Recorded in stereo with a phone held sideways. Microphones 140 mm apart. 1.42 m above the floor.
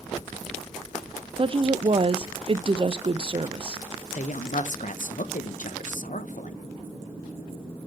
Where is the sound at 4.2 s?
65° left (ahead or behind), 0.8 m.